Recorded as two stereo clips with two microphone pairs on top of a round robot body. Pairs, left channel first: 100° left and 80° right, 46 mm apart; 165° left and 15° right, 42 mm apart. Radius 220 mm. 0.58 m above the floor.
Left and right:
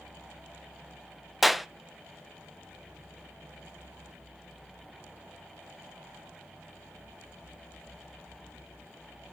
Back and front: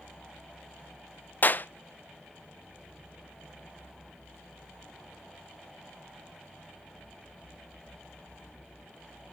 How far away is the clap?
About 0.6 m.